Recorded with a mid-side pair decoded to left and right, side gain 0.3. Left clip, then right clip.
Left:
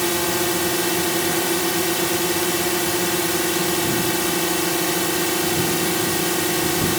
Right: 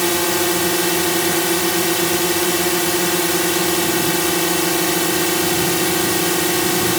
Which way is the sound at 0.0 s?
45° right.